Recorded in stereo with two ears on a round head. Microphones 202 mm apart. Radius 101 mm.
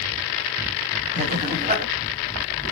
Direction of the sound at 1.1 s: 35° right (ahead or behind).